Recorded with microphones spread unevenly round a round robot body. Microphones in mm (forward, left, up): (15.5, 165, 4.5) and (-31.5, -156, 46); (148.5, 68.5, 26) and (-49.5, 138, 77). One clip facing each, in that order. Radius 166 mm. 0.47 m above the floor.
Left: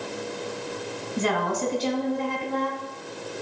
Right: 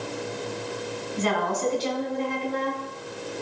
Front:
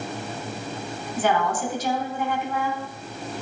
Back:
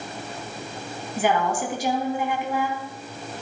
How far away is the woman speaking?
About 4 m.